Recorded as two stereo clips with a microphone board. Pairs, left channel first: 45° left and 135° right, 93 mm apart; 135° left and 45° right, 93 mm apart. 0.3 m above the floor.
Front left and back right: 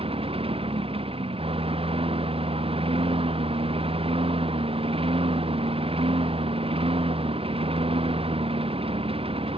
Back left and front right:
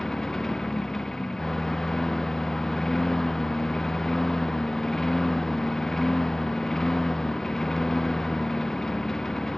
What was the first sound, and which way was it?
A lawn mower, 140° right.